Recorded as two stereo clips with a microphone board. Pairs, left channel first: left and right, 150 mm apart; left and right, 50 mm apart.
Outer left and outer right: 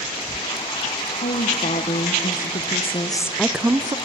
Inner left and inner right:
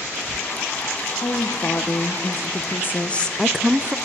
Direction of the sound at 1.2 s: 70° left (ahead or behind).